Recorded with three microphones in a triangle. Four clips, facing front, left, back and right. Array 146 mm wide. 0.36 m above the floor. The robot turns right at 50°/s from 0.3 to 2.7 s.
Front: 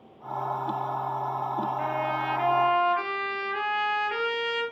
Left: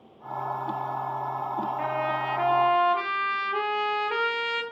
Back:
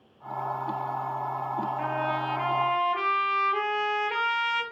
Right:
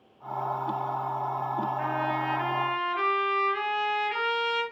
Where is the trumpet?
85° left, 4 m; by 4.6 s 130° left, 4 m.